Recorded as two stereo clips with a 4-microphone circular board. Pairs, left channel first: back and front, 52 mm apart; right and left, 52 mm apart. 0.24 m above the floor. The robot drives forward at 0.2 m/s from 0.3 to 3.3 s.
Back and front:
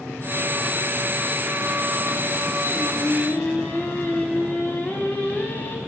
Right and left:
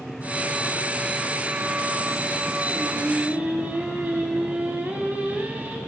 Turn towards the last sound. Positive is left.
turn(degrees=140)